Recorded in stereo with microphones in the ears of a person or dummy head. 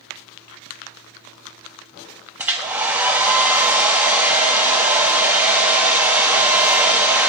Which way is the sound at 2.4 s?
10° right (ahead or behind).